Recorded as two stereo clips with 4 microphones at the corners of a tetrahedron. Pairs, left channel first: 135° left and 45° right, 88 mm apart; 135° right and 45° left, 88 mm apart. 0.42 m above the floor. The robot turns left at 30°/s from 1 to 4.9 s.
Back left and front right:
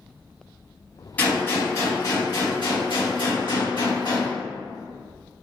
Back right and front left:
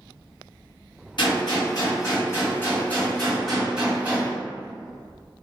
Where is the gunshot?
155° right, 2.0 m; by 4.3 s 110° left, 2.0 m.